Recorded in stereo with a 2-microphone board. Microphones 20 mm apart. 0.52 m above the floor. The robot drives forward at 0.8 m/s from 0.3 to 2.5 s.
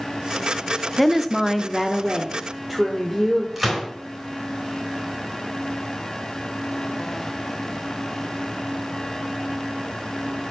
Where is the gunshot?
15° right (ahead or behind), 4 m.